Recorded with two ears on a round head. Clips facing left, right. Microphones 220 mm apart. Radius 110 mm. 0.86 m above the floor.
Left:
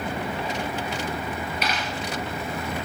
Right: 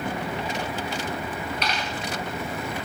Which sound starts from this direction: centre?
A dropped coin, at 1.6 s.